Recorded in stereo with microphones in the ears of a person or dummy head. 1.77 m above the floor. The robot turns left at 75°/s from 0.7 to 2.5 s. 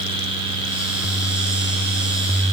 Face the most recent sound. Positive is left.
No sound to turn to.